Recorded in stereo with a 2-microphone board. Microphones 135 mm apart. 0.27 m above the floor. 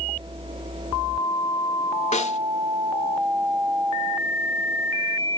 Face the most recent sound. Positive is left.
turn(degrees=55)  # may be behind; listen again after turning